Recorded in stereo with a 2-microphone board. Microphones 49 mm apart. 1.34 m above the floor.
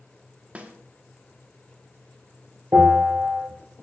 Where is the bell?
50° right (ahead or behind), 4.5 m.